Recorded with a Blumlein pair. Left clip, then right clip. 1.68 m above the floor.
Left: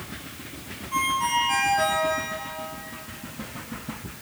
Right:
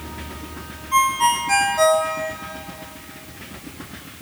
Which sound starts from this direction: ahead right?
A ringtone, at 0.9 s.